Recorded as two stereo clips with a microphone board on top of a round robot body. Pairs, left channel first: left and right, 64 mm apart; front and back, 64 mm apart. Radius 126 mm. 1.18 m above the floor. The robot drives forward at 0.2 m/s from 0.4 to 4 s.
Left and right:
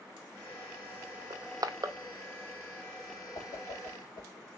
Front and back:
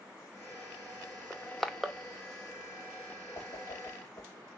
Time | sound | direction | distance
1.3 | crushing | 75° right | 0.6 m
3.4 | a whoosh | 55° left | 0.6 m